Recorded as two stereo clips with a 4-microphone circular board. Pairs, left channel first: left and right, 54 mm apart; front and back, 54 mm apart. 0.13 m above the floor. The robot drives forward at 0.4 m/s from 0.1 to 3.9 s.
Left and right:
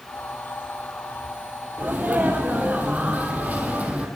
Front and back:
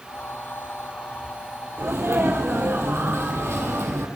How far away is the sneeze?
About 3.5 m.